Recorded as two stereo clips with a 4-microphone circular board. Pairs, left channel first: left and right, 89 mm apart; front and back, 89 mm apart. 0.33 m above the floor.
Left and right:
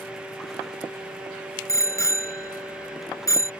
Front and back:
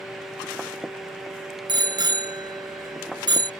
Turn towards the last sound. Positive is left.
turn(degrees=145)